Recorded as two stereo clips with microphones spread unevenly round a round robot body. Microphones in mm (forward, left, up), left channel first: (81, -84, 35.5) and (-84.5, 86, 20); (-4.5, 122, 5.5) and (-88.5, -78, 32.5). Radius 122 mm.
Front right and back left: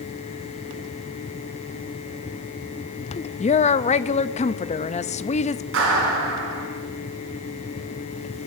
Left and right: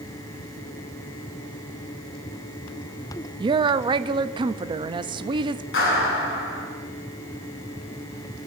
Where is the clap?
95° left, 6.5 m.